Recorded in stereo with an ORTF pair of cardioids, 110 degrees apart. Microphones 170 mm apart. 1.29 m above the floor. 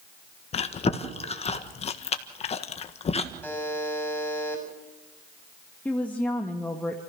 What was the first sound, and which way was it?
Chewing, 40° left.